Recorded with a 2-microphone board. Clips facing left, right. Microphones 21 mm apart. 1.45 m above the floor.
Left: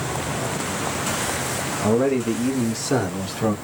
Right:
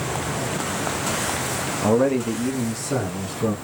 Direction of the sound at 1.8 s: 20° right (ahead or behind).